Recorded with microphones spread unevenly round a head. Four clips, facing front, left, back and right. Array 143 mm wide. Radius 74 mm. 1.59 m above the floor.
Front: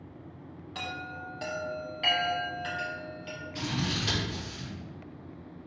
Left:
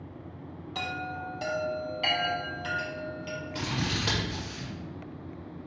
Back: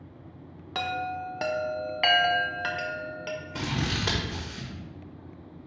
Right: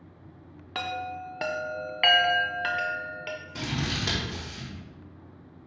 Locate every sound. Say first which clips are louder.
0.8 s a chime: right 3 dB, back 9 dB; 155° right, 0.7 m
3.5 s scissors: even, even; 175° left, 1.6 m